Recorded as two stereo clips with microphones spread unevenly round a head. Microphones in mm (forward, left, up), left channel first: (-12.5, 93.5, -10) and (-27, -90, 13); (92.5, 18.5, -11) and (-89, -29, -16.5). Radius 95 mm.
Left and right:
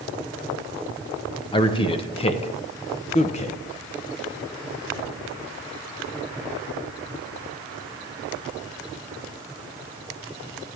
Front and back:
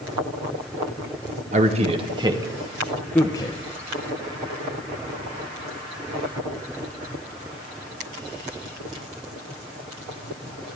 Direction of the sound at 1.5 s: 145° left.